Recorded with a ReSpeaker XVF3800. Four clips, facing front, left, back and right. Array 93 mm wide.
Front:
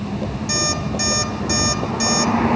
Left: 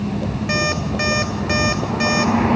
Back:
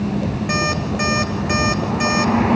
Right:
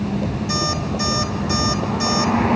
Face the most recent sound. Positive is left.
turn(degrees=125)